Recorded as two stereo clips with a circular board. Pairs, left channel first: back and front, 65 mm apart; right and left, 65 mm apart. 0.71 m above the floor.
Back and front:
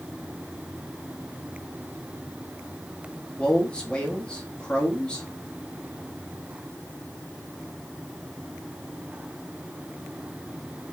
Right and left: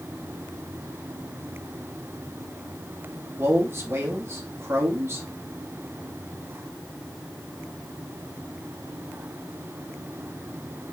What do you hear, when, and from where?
3.4 s a man speaking: 110° left, 1.1 m